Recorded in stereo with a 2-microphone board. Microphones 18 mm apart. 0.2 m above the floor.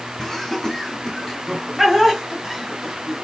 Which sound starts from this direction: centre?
Laughter, at 0.2 s.